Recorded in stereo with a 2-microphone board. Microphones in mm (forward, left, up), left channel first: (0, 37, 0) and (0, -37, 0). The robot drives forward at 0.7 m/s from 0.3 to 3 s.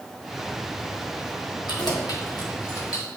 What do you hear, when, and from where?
1.7 s keys jangling: 75° left (ahead or behind), 1.6 m; by 3.1 s 50° left (ahead or behind), 2 m